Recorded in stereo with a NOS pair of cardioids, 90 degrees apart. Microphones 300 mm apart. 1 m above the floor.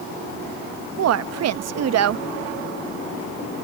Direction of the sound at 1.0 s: 60° right.